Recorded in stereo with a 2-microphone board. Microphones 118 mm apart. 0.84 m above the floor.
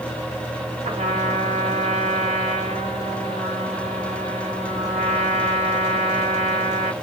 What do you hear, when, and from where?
0.8 s a trumpet: 80° right, 1.9 m